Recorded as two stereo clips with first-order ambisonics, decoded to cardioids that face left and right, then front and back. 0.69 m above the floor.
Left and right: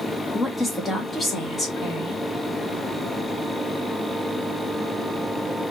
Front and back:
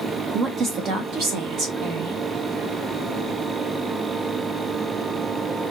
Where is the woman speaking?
165° left, 0.9 m.